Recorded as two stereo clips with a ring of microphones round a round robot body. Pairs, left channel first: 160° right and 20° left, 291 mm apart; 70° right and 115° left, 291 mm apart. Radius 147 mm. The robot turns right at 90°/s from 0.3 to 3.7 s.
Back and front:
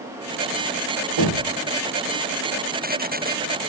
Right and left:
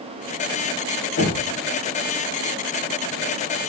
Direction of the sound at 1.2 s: 10° right.